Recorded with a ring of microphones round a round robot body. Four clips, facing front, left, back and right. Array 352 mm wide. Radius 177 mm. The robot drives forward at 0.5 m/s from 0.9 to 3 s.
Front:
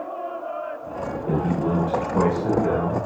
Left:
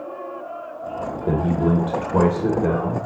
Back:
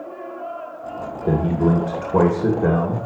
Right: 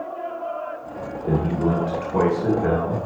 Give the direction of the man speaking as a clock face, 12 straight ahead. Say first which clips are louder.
Left 1 dB, back 5 dB; 7 o'clock.